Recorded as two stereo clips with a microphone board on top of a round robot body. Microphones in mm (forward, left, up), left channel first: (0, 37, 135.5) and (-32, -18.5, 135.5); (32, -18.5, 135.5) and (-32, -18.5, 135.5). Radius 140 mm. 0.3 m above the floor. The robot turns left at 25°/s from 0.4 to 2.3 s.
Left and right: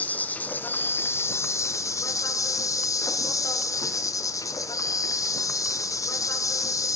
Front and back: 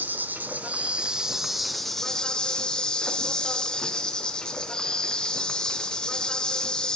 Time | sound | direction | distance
0.0 | an insect | 120° left | 0.7 m